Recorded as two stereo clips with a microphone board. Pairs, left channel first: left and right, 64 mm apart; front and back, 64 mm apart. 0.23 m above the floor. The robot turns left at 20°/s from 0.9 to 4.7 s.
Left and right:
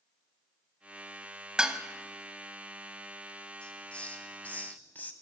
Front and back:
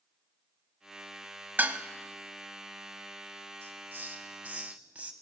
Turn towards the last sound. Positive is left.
turn(degrees=130)